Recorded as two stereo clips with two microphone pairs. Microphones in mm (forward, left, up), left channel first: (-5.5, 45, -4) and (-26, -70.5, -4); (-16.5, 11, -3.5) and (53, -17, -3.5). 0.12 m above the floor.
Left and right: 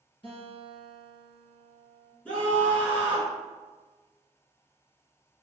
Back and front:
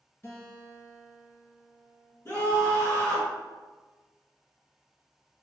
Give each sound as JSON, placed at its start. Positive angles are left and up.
{"t": 0.2, "sound": "a guitar", "azimuth_deg": 110, "distance_m": 1.8}
{"t": 2.2, "sound": "a scream", "azimuth_deg": 150, "distance_m": 1.2}